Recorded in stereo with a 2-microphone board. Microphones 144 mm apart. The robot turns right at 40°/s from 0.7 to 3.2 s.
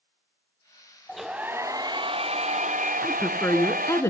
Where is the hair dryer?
Straight behind, 2.5 m; by 4.0 s 100° right, 2.5 m.